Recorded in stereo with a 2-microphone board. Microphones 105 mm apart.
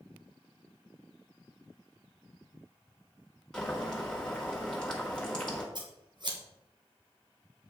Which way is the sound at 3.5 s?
10° left (ahead or behind).